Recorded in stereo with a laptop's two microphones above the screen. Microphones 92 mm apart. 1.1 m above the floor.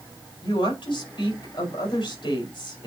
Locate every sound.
0.4 s a woman speaking: 60° left (ahead or behind), 4.5 m